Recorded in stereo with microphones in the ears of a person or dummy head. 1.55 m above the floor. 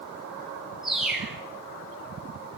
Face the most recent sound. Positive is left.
turn(degrees=-5)  # may be behind; listen again after turning